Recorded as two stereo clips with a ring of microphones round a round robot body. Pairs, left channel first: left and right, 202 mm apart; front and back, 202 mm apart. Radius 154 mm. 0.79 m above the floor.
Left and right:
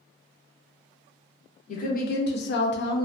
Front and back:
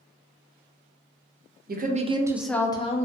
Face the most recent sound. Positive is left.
turn(degrees=55)